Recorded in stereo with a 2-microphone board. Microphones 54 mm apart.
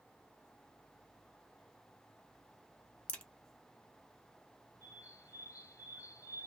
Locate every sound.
3.1 s a crack: 20° left (ahead or behind), 0.7 m
4.8 s a bird: 70° left (ahead or behind), 0.5 m